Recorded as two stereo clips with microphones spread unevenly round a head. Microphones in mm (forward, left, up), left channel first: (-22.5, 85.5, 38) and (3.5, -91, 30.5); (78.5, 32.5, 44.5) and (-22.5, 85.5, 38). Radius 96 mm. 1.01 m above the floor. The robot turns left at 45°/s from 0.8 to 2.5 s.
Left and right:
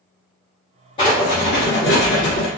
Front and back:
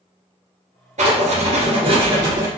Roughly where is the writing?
Behind.